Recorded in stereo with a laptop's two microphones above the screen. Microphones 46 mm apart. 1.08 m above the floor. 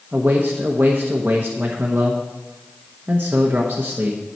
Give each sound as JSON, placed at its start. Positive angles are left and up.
{"t": 0.1, "sound": "a man speaking", "side_deg": -40, "distance_m": 1.0}